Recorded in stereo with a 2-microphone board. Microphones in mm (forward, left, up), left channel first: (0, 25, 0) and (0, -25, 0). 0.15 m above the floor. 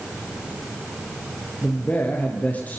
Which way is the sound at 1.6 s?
30° left (ahead or behind).